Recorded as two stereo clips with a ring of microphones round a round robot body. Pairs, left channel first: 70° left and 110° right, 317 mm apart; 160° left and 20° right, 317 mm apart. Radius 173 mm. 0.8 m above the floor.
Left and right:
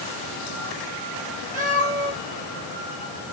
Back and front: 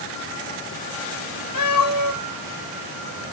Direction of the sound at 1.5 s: Straight behind.